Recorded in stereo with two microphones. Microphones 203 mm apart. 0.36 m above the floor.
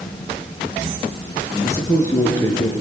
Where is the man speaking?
15° left (ahead or behind), 4.5 m.